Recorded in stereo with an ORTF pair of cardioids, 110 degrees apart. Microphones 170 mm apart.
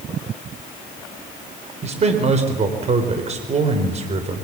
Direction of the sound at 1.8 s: 40° right.